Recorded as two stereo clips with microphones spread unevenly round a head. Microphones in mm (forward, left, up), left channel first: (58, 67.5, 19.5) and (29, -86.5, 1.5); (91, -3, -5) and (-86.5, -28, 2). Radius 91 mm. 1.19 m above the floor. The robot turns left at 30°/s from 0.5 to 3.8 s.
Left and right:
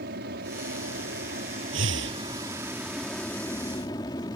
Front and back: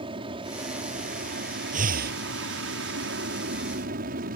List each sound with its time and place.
0.0 s an aircraft: 110° right; by 4.4 s 150° left
1.7 s breathing: 125° right; by 2.2 s 140° right